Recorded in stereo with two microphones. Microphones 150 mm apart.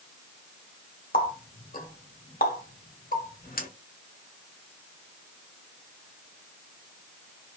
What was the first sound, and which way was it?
A running tap, 75° left (ahead or behind).